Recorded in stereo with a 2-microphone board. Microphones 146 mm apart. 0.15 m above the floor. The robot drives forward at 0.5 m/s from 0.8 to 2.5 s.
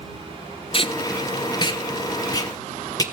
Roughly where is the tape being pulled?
Left.